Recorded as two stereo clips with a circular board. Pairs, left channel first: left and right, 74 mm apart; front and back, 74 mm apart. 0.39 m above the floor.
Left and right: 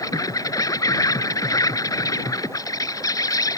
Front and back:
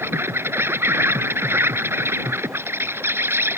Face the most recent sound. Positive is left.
turn(degrees=125)